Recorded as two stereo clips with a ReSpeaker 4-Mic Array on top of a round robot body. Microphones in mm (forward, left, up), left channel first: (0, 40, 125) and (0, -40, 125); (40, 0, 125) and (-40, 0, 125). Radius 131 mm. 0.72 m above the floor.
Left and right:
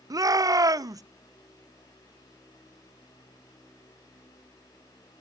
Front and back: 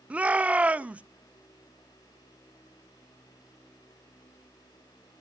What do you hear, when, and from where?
0.1 s a shout: 110° right, 0.7 m